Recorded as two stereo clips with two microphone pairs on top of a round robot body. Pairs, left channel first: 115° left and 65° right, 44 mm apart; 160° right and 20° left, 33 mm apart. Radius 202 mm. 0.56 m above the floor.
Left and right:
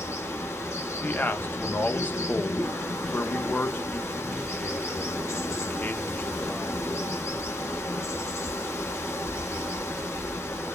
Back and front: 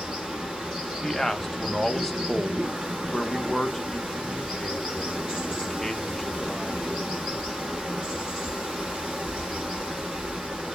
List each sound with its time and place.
0.0 s running water: 85° left, 0.8 m
1.0 s a man speaking: 120° left, 0.9 m